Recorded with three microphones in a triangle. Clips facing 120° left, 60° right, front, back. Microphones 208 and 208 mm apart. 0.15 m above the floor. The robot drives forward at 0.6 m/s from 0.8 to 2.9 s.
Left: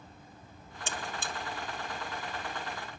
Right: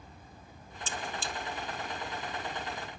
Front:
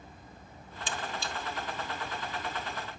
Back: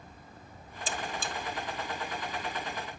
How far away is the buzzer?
About 0.8 m.